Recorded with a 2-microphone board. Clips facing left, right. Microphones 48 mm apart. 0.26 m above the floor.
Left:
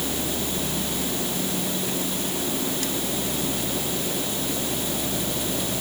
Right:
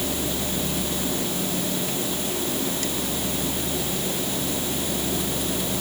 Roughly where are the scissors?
I don't hear scissors.